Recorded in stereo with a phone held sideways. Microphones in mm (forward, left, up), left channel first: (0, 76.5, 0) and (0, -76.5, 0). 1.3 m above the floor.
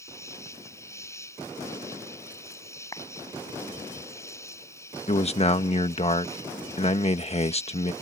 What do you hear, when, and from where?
0.0 s an insect: 20° left (ahead or behind)
2.9 s a clap: 25° left (ahead or behind)
5.1 s a man speaking: 40° left (ahead or behind)